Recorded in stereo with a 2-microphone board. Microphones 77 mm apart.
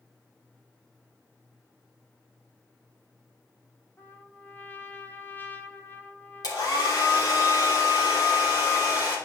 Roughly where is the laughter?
I don't hear laughter.